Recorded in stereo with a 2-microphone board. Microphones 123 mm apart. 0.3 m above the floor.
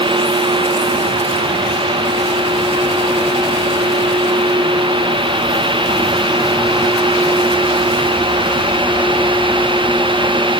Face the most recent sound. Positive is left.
No sound to turn to.